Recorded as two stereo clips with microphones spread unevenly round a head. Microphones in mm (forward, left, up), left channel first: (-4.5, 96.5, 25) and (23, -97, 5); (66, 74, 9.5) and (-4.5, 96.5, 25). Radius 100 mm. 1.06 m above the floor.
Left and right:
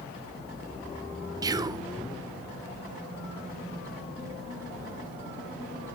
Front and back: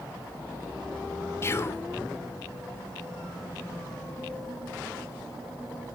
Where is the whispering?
25° right, 0.6 m.